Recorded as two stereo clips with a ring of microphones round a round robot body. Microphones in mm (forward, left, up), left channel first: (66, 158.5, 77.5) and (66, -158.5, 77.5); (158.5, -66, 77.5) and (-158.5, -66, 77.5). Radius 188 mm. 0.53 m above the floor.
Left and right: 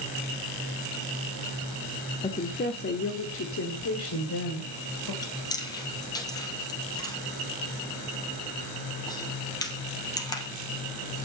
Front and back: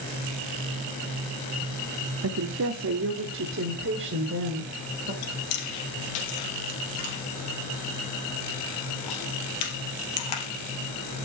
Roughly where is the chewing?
Ahead.